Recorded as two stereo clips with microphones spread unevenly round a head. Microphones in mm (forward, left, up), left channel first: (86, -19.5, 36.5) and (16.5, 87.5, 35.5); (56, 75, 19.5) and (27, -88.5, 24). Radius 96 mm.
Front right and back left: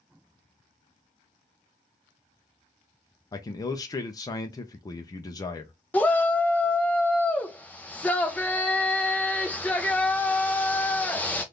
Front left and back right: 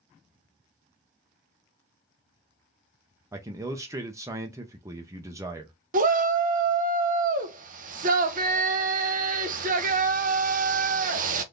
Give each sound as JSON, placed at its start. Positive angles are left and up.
{"t": 3.3, "sound": "a man speaking", "azimuth_deg": -45, "distance_m": 0.5}
{"t": 5.9, "sound": "a shout", "azimuth_deg": -135, "distance_m": 0.5}